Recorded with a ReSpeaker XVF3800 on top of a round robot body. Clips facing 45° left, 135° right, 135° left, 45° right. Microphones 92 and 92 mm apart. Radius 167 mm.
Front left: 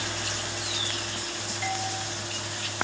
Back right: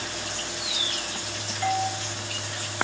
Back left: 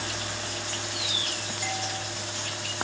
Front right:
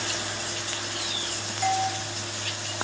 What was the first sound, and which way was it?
A doorbell, 80° right.